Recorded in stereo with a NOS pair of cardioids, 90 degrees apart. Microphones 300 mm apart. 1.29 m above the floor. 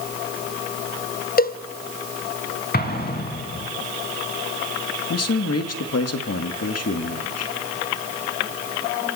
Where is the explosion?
30° left, 5 m.